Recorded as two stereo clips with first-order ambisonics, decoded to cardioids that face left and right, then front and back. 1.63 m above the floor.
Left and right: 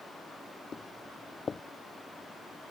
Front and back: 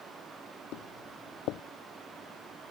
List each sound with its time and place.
0.7 s footsteps: 20° left